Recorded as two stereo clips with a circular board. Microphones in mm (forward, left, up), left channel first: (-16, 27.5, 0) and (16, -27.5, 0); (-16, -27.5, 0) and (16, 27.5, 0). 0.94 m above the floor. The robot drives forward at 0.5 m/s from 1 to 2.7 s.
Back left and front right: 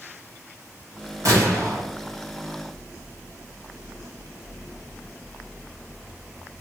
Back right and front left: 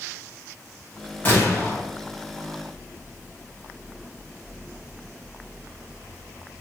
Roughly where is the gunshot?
Ahead right.